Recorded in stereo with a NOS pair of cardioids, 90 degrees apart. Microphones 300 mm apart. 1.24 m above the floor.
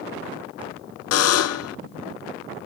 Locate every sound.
1.1 s a buzzer: 55° left, 0.7 m